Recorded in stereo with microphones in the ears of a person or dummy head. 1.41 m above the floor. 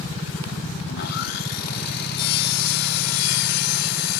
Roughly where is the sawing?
Left.